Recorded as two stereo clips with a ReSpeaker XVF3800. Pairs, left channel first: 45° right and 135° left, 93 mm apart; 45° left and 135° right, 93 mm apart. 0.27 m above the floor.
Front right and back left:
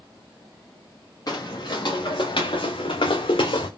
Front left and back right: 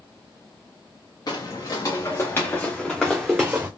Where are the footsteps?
Straight ahead, 1.5 m; by 3.7 s 60° right, 1.0 m.